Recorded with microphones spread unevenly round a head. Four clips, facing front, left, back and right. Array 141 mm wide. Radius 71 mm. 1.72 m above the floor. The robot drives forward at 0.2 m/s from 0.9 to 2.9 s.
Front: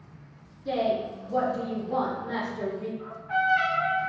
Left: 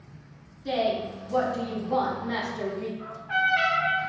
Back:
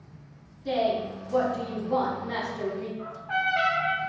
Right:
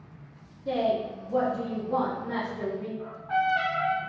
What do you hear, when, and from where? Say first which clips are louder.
0.7 s a woman speaking: even, back 1 dB; 85° left, 1.2 m; by 2.9 s 105° left, 1.3 m
3.0 s a trumpet: right 2 dB, front 3 dB; 165° right, 1.2 m